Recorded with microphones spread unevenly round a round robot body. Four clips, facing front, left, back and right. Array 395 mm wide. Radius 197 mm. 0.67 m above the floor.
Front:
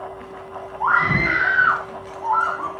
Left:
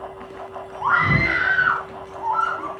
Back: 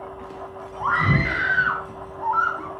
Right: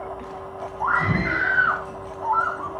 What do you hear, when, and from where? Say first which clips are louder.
0.8 s a scream: left 3 dB, front 3 dB; 175° left, 6 m; by 2.7 s 165° left, 4 m